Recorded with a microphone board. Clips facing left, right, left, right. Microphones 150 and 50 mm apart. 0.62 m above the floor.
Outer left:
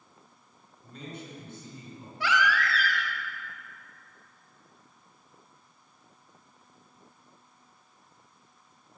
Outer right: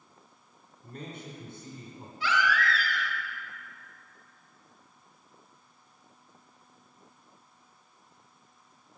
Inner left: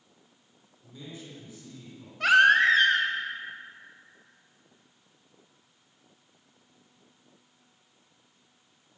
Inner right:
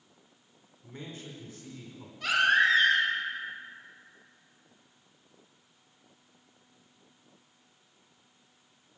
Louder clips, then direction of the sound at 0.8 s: Even, inner right 1 dB; 55° right (ahead or behind).